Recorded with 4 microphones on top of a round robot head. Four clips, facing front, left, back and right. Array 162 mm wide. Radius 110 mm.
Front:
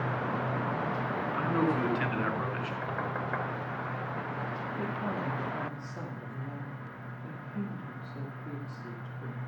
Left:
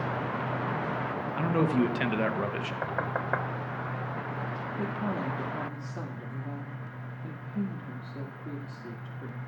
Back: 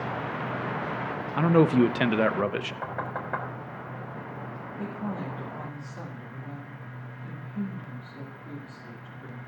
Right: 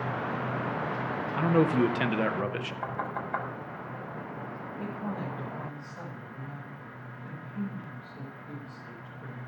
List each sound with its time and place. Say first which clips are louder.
1.4 s a man speaking: right 2 dB, back 9 dB; 170° right, 0.9 m
2.8 s knocking: left 4 dB, back 1 dB; 110° left, 3.5 m
4.8 s a woman speaking: left 3 dB, back 2 dB; 75° left, 2.5 m